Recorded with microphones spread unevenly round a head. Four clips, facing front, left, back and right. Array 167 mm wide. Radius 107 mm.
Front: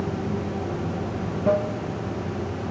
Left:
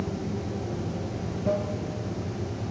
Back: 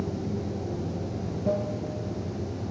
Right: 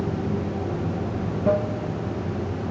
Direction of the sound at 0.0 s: 20° right.